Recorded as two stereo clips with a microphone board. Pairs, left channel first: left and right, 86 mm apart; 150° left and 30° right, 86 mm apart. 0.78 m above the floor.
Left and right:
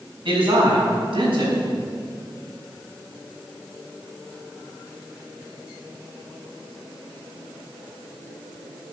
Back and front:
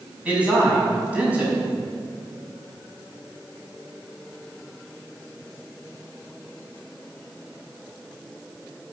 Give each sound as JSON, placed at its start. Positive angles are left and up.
{"t": 0.2, "sound": "a man speaking", "azimuth_deg": -105, "distance_m": 6.0}